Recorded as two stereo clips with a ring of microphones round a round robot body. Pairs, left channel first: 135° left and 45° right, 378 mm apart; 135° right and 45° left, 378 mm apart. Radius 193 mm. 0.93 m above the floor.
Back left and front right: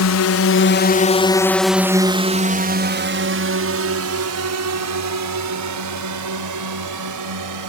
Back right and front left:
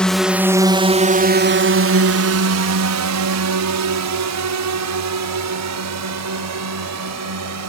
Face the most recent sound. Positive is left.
turn(degrees=-5)